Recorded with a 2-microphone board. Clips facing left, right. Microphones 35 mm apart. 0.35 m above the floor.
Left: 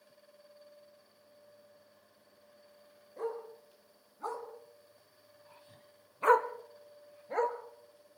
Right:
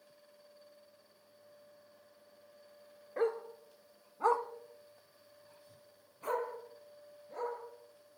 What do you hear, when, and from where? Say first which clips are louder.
3.2 s a dog barking: right 5 dB; 75° right (ahead or behind), 2.5 m; by 8.2 s 80° left, 3.5 m